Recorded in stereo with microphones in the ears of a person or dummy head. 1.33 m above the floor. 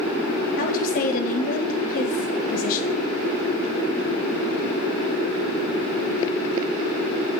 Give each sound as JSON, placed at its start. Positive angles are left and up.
{"t": 0.6, "sound": "a woman speaking", "side_deg": 50, "distance_m": 0.9}